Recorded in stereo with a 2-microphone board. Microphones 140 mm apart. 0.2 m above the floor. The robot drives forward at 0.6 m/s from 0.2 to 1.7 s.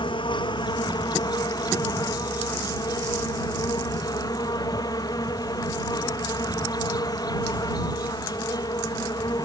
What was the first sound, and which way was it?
An insect, 35° left (ahead or behind).